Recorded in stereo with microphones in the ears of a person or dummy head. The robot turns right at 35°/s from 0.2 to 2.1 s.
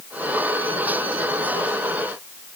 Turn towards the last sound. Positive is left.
No sound to turn to.